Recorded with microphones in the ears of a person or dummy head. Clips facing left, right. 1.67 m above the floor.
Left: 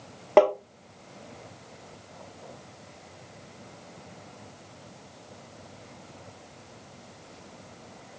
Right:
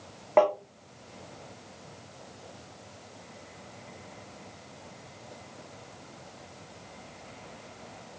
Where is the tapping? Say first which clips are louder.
Left 3 dB; 35° left (ahead or behind), 0.6 m.